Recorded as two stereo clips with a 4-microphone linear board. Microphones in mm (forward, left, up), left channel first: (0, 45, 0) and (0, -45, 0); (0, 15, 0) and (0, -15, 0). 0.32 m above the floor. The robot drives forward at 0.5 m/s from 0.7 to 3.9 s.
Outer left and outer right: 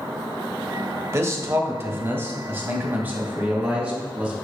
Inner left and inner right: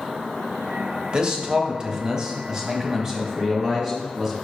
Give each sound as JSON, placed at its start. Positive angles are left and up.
{"t": 1.1, "sound": "a man speaking", "side_deg": -35, "distance_m": 1.0}